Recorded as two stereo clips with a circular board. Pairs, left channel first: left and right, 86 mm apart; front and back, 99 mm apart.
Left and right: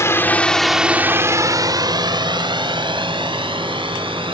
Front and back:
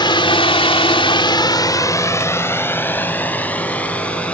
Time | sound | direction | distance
0.0 | a drone | 35° left | ?